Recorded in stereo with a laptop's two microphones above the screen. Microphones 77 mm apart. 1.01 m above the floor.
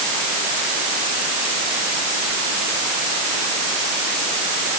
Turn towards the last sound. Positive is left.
No sound to turn to.